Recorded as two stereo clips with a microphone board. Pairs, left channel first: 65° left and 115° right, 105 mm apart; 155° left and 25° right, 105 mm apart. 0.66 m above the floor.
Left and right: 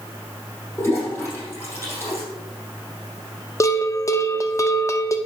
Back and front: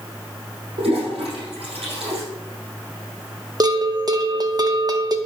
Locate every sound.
0.8 s a toilet flushing: straight ahead, 5 m
3.6 s a bell: 15° left, 0.9 m